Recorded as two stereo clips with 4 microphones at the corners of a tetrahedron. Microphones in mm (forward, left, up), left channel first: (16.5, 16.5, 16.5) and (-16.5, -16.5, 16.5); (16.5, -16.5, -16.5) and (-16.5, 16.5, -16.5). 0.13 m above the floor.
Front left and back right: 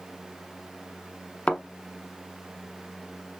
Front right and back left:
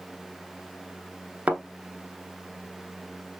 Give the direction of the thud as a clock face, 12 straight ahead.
9 o'clock.